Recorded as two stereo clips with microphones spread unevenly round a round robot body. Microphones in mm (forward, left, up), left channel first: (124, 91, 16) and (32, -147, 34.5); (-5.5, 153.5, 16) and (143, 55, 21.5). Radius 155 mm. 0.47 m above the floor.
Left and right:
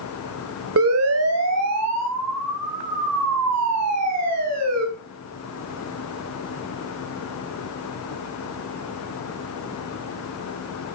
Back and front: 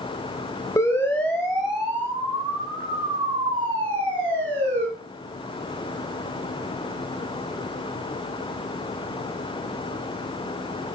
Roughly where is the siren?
Behind right.